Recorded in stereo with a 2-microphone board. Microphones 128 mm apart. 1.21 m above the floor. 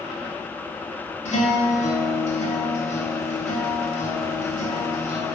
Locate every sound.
1.2 s a guitar: 70° left (ahead or behind), 1.7 m